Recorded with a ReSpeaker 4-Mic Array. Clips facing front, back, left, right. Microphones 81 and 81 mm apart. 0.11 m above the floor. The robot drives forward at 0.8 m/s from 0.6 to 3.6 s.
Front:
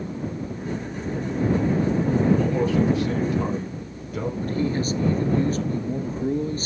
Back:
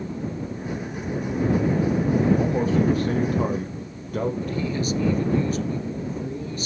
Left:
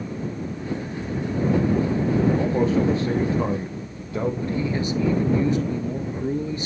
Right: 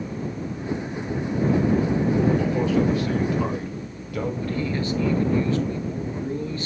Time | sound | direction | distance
2.4 | a man speaking | 130° left | 2 m
4.4 | a man speaking | 30° left | 1.5 m